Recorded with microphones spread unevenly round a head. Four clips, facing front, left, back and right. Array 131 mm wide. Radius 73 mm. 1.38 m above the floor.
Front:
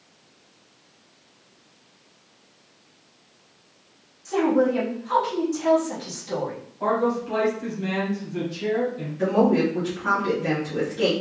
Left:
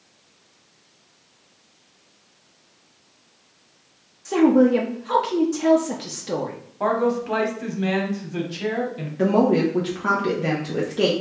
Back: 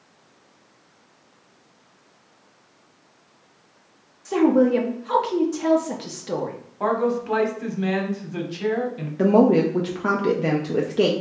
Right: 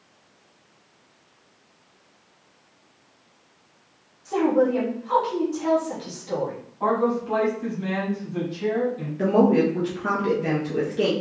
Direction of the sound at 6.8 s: 115° left.